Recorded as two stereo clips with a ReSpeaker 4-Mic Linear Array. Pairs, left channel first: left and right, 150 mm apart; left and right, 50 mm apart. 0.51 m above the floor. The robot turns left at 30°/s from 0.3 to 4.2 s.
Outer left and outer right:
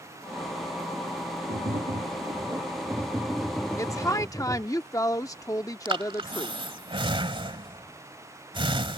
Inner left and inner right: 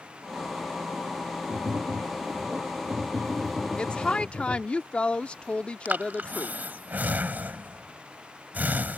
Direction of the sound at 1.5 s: 125° right.